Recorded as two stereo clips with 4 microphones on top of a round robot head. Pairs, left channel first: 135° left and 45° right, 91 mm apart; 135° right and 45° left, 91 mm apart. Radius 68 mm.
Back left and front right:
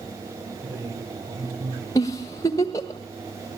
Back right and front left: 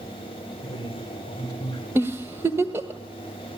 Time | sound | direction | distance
0.6 | a man speaking | 85° right | 8 m
1.9 | a giggle | 100° left | 1.4 m